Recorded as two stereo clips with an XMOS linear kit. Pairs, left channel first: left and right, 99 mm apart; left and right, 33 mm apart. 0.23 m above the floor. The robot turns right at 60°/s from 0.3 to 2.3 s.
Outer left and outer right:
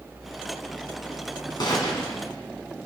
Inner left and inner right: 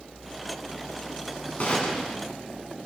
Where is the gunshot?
120° left, 2.5 m; by 2.2 s 150° left, 2.5 m.